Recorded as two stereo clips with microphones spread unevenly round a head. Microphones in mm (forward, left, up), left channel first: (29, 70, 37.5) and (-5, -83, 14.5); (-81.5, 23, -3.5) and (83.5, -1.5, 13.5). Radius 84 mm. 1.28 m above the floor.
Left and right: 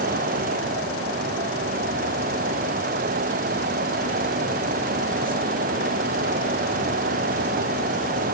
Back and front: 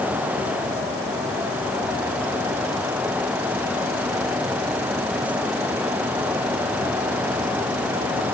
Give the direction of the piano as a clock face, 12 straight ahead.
I don't hear a piano.